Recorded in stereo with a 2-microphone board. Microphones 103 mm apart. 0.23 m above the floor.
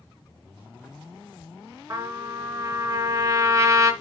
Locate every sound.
1.9 s a trumpet: 35° right (ahead or behind), 1.9 m